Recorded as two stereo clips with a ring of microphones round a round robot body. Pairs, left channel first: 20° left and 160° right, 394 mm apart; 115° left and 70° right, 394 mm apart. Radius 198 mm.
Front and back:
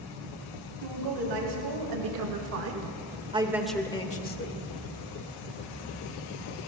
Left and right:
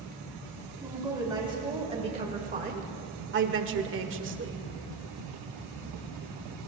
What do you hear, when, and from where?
0.8 s a woman speaking: 150° right, 2.5 m; by 4.6 s 20° right, 1.5 m